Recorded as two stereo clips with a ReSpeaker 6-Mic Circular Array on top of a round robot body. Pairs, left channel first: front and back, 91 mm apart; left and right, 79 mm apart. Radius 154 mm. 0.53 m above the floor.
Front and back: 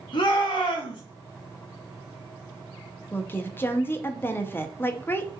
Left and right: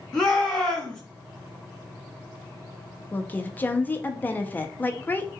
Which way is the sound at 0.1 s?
10° left.